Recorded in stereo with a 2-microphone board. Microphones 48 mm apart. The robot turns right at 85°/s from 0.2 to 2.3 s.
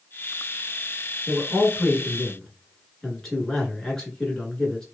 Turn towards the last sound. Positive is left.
turn(degrees=10)  # may be behind; listen again after turning